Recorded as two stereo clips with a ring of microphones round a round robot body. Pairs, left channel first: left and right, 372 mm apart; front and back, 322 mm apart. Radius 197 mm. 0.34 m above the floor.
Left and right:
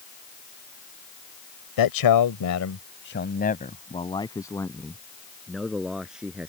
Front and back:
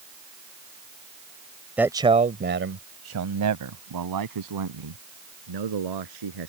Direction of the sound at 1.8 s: 95° left.